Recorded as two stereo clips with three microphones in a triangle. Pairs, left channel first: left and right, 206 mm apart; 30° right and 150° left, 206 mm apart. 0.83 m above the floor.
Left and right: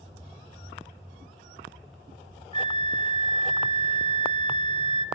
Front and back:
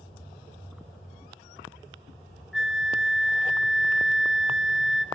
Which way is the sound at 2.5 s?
65° left.